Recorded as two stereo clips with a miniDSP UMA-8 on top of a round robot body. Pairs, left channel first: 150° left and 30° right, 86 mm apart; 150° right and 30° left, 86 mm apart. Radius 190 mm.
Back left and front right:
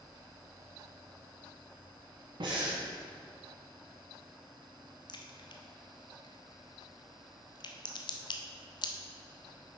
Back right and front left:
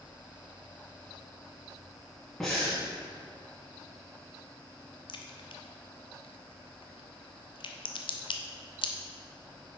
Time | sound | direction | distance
2.4 | breathing | 60° right | 1.5 m
5.1 | a crack | 175° right | 0.7 m